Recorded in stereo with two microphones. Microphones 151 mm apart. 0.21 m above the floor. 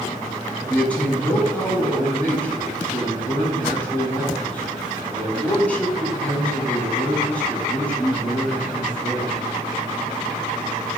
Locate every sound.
0.7 s a man speaking: 10° left (ahead or behind), 2.5 m